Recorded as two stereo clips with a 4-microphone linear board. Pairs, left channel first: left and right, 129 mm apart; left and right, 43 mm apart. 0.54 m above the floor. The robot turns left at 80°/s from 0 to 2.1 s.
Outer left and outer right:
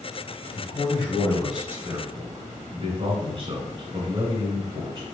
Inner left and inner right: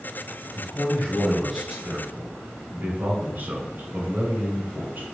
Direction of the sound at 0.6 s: 70° left.